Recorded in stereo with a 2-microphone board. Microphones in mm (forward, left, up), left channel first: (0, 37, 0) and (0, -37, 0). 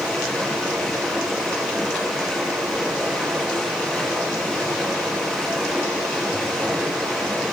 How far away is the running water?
About 3.5 m.